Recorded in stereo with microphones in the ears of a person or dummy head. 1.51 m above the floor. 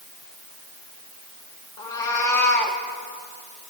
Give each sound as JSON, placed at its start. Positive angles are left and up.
{"t": 1.8, "sound": "a cat meowing", "side_deg": 25, "distance_m": 1.5}